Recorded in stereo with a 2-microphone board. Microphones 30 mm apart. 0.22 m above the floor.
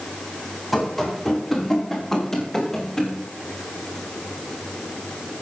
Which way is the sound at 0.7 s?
Centre (ahead or behind).